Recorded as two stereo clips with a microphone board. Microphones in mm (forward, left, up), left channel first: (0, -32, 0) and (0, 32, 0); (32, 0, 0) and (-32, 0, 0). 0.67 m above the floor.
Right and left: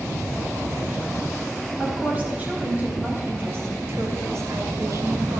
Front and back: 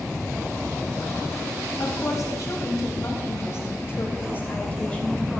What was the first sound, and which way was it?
A woman speaking, 25° left.